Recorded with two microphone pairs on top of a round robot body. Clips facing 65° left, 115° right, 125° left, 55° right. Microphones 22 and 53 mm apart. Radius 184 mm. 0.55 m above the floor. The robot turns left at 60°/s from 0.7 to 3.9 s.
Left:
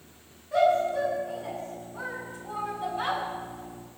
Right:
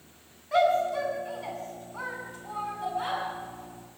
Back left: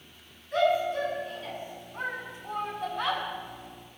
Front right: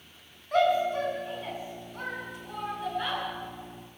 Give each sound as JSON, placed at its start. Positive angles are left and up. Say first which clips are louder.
{"t": 0.5, "sound": "a shout", "louder": "left 1 dB, front right 1 dB", "azimuth_deg": -85, "distance_m": 7.5}